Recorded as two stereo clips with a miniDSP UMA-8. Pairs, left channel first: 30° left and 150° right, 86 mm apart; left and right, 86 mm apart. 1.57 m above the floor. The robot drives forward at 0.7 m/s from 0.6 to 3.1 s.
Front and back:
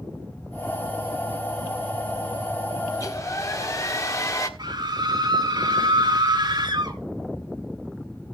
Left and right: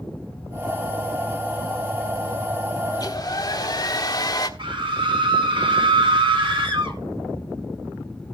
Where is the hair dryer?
65° left, 1.6 m; by 4.5 s 70° left, 1.5 m.